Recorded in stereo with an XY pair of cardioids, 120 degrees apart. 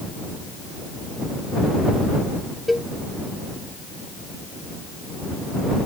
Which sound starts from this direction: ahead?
A cowbell, at 2.7 s.